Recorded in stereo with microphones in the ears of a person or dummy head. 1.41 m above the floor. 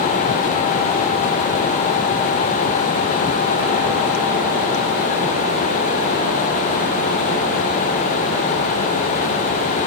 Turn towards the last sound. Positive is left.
No sound to turn to.